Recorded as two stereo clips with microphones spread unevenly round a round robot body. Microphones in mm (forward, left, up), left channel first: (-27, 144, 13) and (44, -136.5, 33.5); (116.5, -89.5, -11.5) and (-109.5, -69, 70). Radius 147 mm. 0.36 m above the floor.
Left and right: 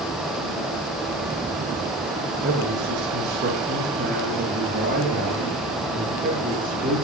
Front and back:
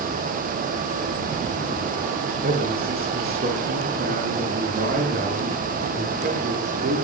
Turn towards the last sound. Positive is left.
turn(degrees=-140)